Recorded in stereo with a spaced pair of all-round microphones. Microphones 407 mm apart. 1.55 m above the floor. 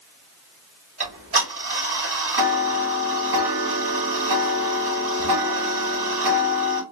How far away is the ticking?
About 1.6 m.